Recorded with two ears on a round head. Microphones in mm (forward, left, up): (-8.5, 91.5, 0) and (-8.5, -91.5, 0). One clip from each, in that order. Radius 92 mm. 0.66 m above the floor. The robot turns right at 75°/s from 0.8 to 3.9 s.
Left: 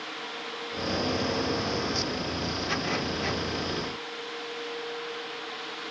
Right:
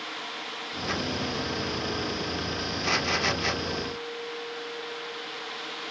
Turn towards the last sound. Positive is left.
No sound to turn to.